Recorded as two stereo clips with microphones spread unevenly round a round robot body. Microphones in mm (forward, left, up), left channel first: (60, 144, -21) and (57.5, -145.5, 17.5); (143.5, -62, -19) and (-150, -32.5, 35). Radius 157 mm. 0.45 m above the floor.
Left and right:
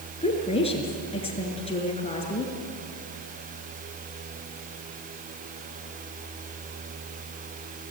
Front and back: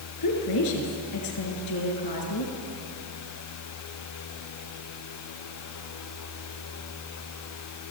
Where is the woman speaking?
20° left, 5.5 m.